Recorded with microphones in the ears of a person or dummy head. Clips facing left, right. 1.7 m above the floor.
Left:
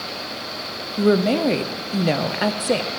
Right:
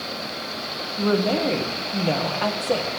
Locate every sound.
1.0 s a woman speaking: 25° left (ahead or behind), 0.5 m